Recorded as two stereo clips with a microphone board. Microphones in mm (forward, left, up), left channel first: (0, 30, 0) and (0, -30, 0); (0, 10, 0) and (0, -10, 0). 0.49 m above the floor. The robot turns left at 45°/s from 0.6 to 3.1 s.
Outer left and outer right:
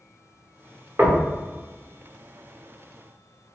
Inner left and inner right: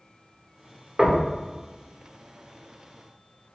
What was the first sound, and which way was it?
Knocking, 40° right (ahead or behind).